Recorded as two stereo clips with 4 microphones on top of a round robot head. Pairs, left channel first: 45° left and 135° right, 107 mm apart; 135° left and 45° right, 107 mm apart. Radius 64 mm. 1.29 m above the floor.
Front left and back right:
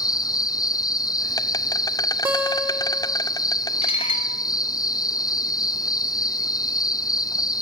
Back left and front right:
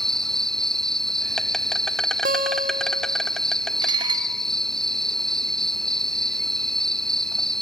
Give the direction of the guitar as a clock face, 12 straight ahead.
2 o'clock.